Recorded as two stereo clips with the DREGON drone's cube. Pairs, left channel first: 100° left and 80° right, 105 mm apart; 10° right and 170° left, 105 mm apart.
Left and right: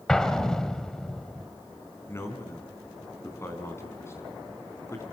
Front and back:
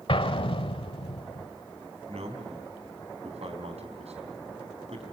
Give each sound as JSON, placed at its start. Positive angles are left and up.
{"t": 0.1, "sound": "an explosion", "azimuth_deg": 15, "distance_m": 1.3}
{"t": 2.1, "sound": "a man speaking", "azimuth_deg": 165, "distance_m": 4.5}